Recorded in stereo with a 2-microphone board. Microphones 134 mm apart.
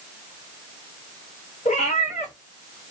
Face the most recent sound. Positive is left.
turn(degrees=80)